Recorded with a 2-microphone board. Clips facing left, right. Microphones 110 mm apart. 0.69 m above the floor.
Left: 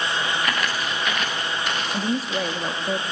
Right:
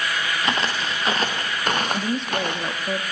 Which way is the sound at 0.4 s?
25° right (ahead or behind).